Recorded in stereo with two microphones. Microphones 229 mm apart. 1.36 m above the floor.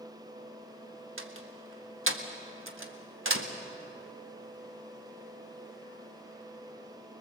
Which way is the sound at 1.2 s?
60° right (ahead or behind).